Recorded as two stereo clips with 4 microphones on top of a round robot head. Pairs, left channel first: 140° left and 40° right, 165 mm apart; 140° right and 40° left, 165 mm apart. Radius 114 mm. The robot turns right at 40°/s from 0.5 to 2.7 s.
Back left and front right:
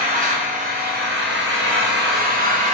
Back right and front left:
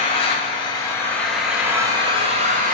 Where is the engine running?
85° right, 2.5 m; by 2.7 s 5° left, 2.5 m.